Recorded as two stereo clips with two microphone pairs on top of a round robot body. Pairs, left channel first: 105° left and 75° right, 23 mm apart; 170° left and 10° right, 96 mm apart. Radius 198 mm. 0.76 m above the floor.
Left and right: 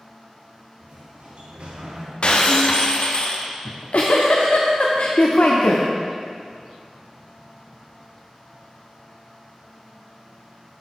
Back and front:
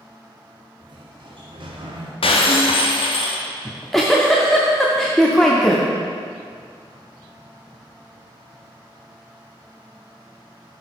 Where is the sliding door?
40° right, 1.6 m.